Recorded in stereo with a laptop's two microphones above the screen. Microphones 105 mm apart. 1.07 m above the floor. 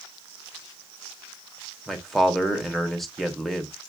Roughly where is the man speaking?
Centre.